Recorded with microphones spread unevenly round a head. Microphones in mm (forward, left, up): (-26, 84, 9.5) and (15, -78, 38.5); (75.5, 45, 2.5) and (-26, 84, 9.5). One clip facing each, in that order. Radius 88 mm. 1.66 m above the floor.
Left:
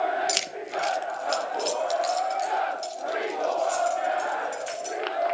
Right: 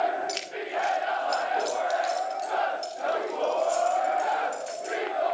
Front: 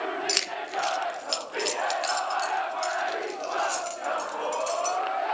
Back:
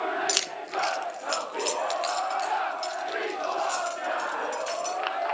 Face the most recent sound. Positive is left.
turn(degrees=25)